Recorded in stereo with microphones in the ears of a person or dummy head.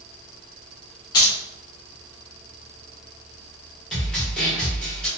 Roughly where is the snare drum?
Centre.